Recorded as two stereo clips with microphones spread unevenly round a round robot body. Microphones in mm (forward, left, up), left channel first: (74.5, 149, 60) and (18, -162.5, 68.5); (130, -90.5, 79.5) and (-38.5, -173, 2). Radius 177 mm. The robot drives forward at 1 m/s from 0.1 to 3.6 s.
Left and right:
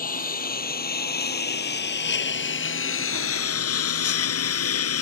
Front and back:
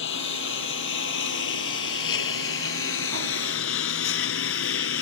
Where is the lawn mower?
15° left; by 5.0 s 35° left.